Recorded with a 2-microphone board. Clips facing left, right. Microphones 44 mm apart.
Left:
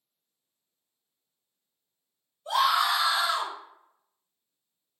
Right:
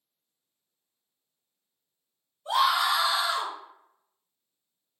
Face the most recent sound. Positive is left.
turn(degrees=0)  # may be behind; listen again after turning